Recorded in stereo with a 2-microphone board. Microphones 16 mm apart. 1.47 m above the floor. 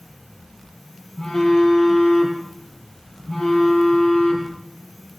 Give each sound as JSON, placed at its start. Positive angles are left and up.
{"t": 1.2, "sound": "a phone buzzing", "side_deg": 25, "distance_m": 7.5}